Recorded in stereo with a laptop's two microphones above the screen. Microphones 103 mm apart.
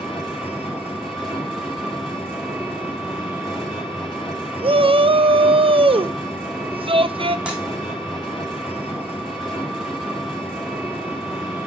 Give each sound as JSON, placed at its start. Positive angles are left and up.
{"t": 0.0, "sound": "an engine running", "side_deg": -5, "distance_m": 2.0}
{"t": 4.6, "sound": "a shout", "side_deg": -60, "distance_m": 0.5}
{"t": 7.5, "sound": "breaking glass", "side_deg": -10, "distance_m": 2.5}